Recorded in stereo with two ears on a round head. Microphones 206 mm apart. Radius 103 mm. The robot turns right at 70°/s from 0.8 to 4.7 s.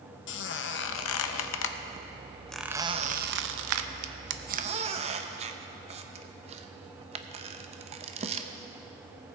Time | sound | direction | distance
0.3 | a squeak | 50° left (ahead or behind) | 0.6 m